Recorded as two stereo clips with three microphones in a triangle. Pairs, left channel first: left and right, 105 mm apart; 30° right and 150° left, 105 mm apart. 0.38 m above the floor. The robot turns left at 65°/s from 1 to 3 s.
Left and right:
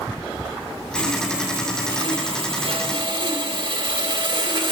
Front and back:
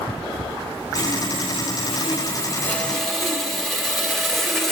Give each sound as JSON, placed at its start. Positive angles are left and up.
{"t": 0.9, "sound": "sawing", "azimuth_deg": 10, "distance_m": 0.8}